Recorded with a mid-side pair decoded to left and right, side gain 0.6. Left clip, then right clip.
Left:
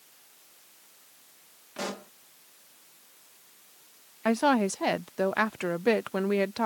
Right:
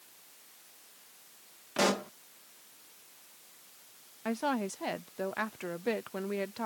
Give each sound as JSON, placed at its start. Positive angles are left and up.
{"t": 1.8, "sound": "a pop", "azimuth_deg": -40}
{"t": 4.2, "sound": "a woman speaking", "azimuth_deg": 40}